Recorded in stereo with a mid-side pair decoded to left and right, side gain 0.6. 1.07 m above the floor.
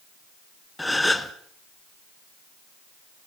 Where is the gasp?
5° left, 1.8 m.